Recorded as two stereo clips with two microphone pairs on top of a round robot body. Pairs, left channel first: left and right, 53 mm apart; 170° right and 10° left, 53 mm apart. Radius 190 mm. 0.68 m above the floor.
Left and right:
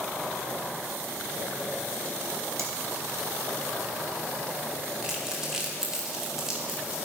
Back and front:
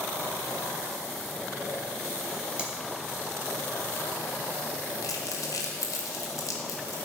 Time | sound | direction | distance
2.6 | cutlery clinking | 60° right | 1.3 m
5.0 | crumpling | 170° right | 1.2 m